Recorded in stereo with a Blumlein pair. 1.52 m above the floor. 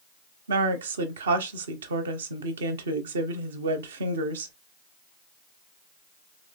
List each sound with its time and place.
0.5 s a woman speaking: 65° right, 0.8 m